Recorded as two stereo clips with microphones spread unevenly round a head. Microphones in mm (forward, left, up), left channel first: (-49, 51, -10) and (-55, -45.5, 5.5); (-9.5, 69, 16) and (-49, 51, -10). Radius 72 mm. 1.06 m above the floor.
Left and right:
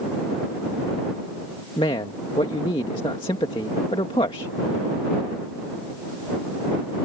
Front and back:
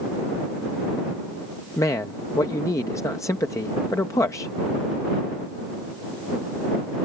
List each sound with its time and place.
1.8 s a man speaking: 35° left